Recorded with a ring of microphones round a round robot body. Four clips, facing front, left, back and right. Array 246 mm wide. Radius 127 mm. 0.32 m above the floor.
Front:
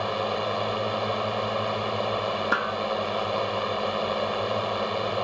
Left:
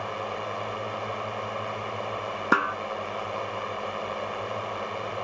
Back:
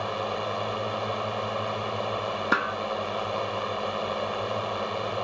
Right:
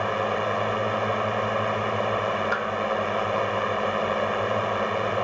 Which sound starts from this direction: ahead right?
A drone, at 0.0 s.